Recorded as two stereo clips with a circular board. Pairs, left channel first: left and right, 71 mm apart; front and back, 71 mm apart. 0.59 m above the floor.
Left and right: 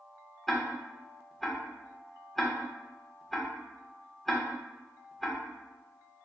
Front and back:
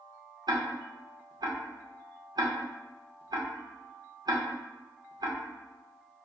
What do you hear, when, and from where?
0.5 s ticking: 175° left, 0.6 m